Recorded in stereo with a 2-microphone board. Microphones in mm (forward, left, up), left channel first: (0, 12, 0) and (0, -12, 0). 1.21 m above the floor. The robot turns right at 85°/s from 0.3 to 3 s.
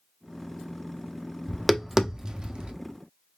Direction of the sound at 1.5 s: 15° left (ahead or behind).